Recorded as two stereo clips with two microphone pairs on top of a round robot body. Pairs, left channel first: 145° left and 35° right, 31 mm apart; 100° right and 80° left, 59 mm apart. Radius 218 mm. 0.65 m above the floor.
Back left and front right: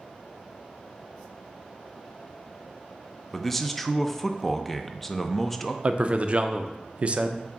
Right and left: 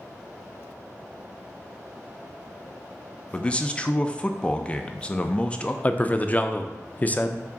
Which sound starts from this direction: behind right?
A man speaking, at 3.3 s.